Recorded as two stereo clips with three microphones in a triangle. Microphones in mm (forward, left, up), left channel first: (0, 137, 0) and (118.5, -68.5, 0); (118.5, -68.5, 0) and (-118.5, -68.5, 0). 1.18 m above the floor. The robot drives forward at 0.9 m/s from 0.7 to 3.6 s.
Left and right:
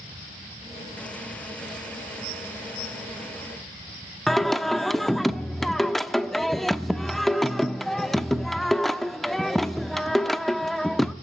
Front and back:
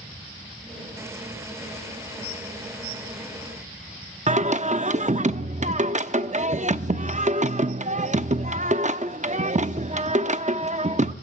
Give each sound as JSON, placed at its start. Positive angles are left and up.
{"t": 4.3, "sound": "singing", "azimuth_deg": -150, "distance_m": 0.7}